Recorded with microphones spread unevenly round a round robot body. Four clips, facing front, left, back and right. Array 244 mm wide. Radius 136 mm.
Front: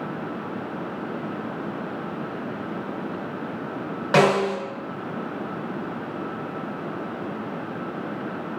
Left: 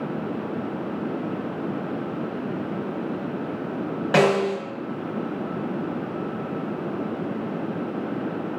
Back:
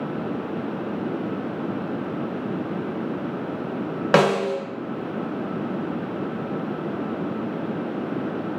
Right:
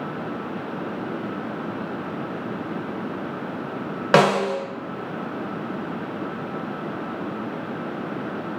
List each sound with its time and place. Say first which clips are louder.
4.1 s a snare drum: right 2 dB, even; 145° right, 0.6 m